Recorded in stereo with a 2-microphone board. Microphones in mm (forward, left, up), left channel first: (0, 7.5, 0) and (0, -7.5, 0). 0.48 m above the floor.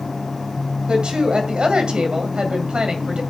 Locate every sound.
0.9 s a woman speaking: 65° right (ahead or behind), 2 m